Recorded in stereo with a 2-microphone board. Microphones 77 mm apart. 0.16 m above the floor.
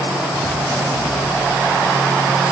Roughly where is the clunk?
I don't hear a clunk.